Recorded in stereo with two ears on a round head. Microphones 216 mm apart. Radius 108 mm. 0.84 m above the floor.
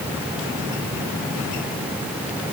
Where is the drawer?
No drawer in this recording.